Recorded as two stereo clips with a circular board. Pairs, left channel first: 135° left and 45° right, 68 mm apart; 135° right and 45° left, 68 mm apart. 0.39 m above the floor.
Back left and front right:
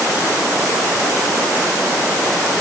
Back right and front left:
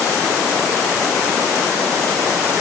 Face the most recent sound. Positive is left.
No sound to turn to.